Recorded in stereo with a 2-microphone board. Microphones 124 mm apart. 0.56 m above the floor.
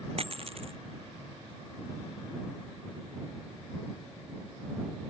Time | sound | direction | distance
0.2 | a dropped coin | 50° right (ahead or behind) | ?